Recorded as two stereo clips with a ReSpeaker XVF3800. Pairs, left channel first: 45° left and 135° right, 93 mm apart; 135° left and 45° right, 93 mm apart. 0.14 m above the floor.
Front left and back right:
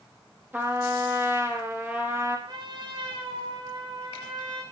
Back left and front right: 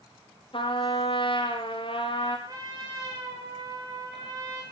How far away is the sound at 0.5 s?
About 5 m.